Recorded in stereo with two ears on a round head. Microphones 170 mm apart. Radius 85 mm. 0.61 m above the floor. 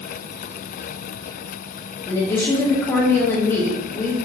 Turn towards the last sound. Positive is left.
turn(degrees=15)  # may be behind; listen again after turning